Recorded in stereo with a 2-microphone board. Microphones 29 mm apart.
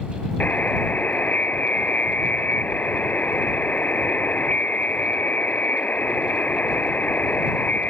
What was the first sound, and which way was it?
A buzzer, 70° left (ahead or behind).